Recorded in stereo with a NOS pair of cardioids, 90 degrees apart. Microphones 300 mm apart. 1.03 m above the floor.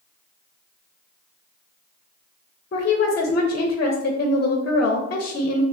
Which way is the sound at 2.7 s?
30° left.